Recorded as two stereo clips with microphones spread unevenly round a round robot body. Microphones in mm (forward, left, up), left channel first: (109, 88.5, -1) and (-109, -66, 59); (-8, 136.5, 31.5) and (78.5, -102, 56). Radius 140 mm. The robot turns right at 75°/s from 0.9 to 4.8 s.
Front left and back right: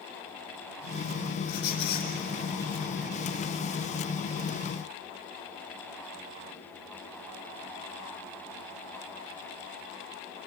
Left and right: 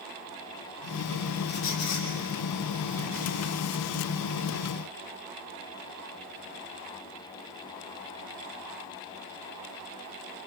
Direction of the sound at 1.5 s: 60° left.